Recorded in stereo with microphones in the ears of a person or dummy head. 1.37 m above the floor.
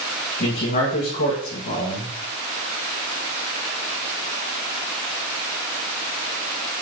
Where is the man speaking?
50° left (ahead or behind), 1.6 m.